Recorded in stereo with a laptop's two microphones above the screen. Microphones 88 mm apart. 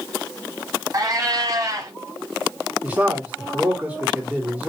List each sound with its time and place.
0.9 s a cat meowing: 40° right (ahead or behind), 1.6 m
2.8 s a man speaking: 15° right (ahead or behind), 2.5 m